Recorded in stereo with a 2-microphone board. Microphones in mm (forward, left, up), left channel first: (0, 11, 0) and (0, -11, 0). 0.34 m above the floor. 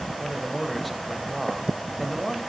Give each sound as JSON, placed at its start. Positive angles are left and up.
{"t": 0.2, "sound": "a man speaking", "side_deg": 5, "distance_m": 1.3}